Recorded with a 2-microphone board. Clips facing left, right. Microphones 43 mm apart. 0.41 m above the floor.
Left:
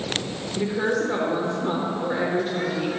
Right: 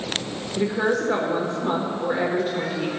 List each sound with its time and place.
0.6 s a woman speaking: 10° right (ahead or behind), 1.2 m